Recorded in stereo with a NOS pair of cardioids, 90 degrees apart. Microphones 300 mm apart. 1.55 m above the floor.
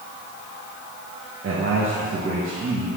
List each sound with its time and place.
1.4 s a man speaking: 45° right, 1.7 m